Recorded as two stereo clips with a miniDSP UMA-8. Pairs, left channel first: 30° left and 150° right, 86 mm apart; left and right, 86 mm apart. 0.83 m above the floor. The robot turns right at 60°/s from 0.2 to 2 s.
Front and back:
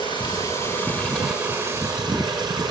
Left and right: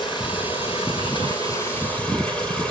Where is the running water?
60° left, 5.5 m; by 2.7 s 170° left, 5.5 m.